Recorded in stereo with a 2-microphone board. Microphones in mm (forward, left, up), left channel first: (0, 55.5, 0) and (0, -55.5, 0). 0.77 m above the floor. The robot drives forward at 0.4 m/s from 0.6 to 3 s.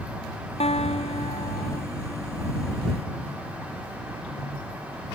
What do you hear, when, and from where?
0.6 s a guitar: 70° left (ahead or behind); by 1.8 s 65° left (ahead or behind)